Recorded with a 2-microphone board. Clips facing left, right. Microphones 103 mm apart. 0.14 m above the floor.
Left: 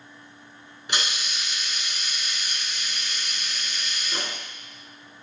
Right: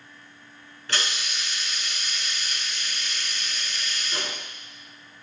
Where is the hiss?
15° left (ahead or behind), 1.4 m.